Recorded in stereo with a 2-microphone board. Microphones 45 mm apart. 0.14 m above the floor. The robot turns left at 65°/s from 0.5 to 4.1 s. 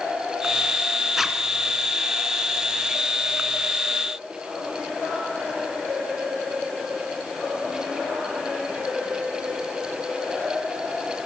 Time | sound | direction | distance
1.2 | a zipper | 5° right (ahead or behind) | 1.9 m